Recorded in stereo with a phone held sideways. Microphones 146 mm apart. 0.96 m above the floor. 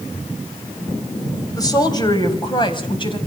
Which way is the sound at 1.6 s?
25° left (ahead or behind).